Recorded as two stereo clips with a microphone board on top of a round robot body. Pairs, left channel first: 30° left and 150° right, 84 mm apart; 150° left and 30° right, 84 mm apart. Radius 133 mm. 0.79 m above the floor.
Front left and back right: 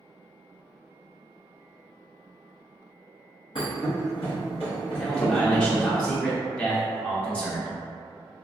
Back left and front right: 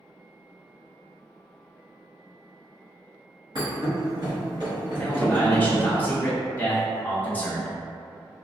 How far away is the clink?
No clink in this recording.